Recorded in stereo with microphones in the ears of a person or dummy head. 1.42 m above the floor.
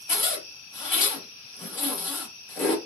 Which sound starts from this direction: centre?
A zipper, at 0.1 s.